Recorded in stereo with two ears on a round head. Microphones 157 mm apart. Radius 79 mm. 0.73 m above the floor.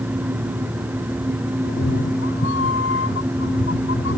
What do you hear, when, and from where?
1.6 s a cat meowing: 85° left; by 4.2 s 80° left